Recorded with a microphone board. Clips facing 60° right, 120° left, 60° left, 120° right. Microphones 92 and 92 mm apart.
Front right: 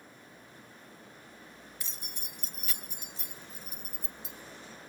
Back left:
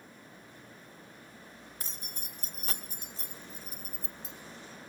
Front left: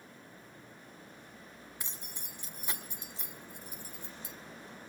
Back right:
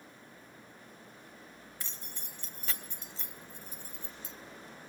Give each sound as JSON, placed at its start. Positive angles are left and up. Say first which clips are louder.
{"t": 1.8, "sound": "keys jangling", "louder": "back left 1 dB, even", "azimuth_deg": 130, "distance_m": 1.2}